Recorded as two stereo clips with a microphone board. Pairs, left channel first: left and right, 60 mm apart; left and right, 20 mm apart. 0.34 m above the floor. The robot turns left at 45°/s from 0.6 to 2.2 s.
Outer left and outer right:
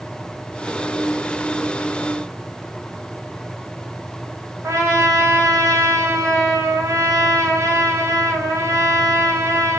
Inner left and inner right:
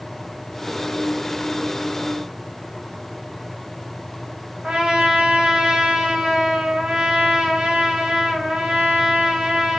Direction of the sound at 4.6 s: 55° right (ahead or behind).